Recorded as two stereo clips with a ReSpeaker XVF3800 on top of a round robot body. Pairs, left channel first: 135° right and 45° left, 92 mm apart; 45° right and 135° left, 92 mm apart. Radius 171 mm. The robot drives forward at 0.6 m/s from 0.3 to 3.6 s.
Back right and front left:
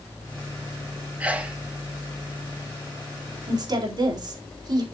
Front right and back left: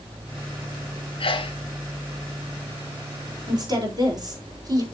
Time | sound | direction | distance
1.2 | a sneeze | 30° right | 1.8 m
3.5 | a woman speaking | 90° left | 4 m